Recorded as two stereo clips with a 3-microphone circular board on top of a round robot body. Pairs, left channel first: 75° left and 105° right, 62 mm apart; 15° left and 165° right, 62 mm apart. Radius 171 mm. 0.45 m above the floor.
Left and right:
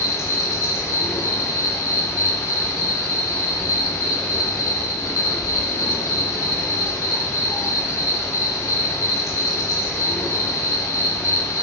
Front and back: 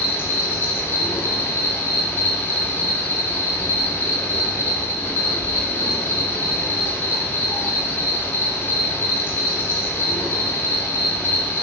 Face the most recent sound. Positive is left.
turn(degrees=60)